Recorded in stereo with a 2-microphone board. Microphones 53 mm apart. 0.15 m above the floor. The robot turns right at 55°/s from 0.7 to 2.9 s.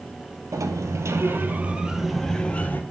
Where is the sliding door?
80° right, 0.6 m; by 2.8 s 35° left, 0.6 m.